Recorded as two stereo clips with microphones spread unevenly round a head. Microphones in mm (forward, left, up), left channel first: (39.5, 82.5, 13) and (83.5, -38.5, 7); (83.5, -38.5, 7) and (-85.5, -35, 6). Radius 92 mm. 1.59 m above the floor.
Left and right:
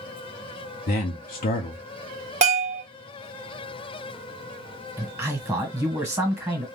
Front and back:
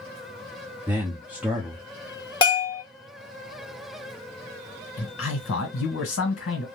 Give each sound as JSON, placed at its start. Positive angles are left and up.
{"t": 0.9, "sound": "a man speaking", "azimuth_deg": 95, "distance_m": 0.6}
{"t": 2.4, "sound": "a bell", "azimuth_deg": -55, "distance_m": 1.3}
{"t": 5.0, "sound": "a man speaking", "azimuth_deg": 5, "distance_m": 1.5}